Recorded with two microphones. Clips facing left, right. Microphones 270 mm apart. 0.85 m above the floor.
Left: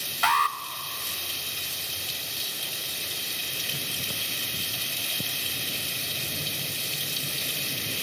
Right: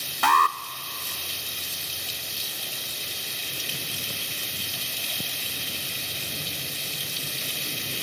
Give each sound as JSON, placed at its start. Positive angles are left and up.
{"t": 0.2, "sound": "an alarm", "side_deg": -60, "distance_m": 0.6}